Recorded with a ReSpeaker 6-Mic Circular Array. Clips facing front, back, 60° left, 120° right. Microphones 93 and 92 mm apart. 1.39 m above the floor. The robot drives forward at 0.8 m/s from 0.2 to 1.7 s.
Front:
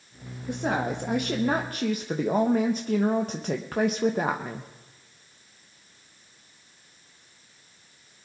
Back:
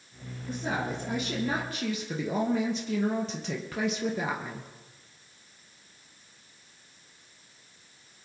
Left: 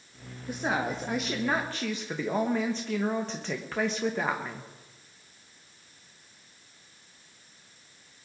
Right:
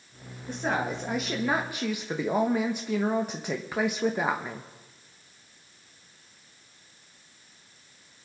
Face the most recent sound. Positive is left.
turn(degrees=-40)